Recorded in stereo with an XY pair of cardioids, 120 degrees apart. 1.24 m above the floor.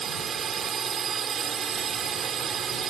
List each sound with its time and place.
0.0 s a drone: 45° right